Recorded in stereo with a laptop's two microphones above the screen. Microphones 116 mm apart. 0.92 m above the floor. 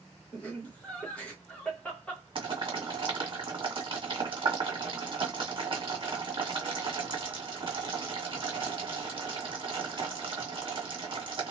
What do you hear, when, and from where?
0.3 s laughter: 10° left (ahead or behind), 1.0 m
2.4 s boiling: 50° right (ahead or behind), 1.7 m